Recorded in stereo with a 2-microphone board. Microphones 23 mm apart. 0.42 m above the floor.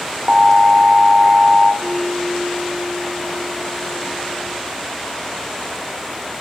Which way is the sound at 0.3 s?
10° right (ahead or behind).